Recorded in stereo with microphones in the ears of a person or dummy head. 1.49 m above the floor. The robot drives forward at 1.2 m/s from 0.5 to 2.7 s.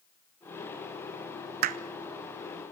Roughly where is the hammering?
Right.